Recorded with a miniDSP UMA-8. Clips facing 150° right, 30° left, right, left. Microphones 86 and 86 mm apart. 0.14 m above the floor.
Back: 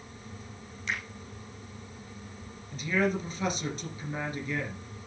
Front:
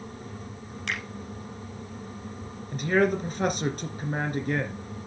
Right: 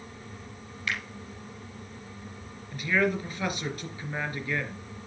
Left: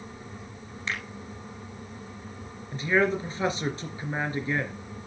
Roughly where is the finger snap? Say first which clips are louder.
Front 1 dB, even; ahead left.